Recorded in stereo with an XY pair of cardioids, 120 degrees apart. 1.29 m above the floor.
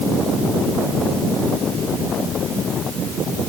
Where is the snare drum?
No snare drum in this recording.